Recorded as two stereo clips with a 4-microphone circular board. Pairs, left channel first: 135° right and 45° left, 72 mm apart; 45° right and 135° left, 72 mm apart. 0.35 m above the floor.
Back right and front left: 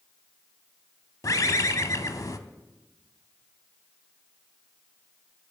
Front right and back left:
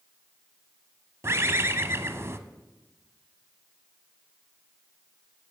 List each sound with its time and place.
1.2 s a bird: 175° right, 0.6 m